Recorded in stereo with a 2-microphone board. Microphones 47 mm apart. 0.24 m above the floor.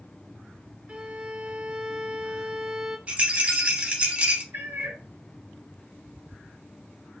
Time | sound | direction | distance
0.9 | a violin | 25° right (ahead or behind) | 0.7 m
3.1 | a rattle | 30° right (ahead or behind) | 0.6 m
4.5 | a cat meowing | 55° right (ahead or behind) | 1.1 m